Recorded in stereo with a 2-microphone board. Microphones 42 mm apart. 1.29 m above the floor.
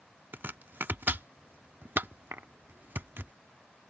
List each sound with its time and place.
0.3 s chopping: 60° right (ahead or behind)